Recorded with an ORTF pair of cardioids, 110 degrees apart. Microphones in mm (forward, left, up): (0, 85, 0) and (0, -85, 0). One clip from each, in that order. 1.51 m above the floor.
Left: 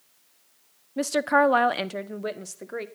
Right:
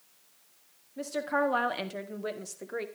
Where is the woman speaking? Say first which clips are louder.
Left 8 dB; 60° left, 0.7 m; by 2.9 s 15° left, 1.4 m.